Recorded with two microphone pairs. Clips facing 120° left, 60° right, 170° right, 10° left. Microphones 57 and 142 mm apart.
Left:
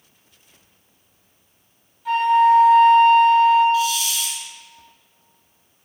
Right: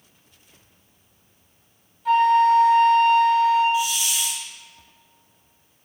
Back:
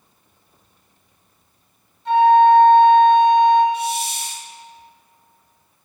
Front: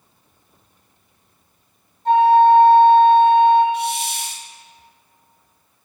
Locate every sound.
2.0 s a flute: 30° left, 2 m
3.7 s a hiss: 10° left, 1.1 m